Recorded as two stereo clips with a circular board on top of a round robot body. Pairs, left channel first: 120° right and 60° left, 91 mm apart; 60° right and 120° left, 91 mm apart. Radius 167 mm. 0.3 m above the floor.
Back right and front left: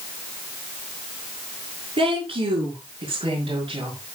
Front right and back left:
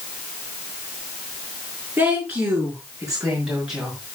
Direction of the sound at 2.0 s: 40° left.